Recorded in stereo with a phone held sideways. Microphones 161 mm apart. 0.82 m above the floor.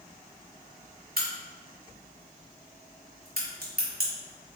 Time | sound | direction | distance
1.2 | a crack | 70° right (ahead or behind) | 1.5 m